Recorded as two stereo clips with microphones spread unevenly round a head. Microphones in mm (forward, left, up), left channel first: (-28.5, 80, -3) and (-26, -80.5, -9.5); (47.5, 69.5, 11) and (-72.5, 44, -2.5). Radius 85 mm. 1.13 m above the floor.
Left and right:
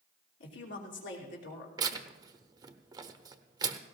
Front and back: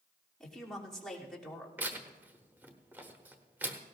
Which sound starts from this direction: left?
A woman speaking, at 0.4 s.